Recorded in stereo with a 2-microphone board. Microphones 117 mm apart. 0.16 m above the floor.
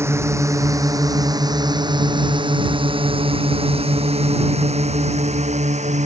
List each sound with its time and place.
0.0 s a drone: 20° right (ahead or behind); by 6.1 s 65° right (ahead or behind)